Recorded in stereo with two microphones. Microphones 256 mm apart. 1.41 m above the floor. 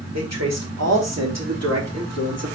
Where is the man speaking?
80° right, 3.5 m.